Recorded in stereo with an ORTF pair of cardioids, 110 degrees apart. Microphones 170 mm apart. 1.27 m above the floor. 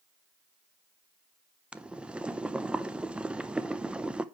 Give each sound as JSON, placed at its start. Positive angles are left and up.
{"t": 1.7, "sound": "boiling", "azimuth_deg": -5, "distance_m": 0.6}